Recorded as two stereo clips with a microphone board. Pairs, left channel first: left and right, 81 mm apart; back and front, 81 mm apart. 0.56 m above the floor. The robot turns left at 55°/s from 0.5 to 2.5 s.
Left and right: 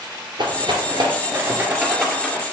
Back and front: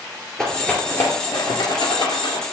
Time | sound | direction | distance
0.4 | a rattle | 95° right | 2.0 m